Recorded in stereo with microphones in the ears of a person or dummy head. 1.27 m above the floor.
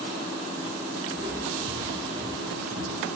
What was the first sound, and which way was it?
Footsteps, 45° right (ahead or behind).